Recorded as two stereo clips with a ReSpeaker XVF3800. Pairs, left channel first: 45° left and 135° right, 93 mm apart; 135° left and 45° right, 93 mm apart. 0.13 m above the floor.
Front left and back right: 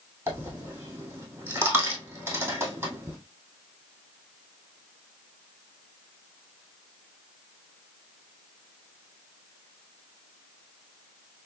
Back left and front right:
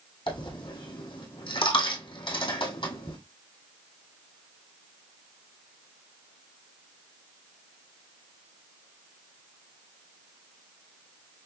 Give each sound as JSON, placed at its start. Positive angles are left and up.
{"t": 0.3, "sound": "a dropped coin", "azimuth_deg": 155, "distance_m": 1.7}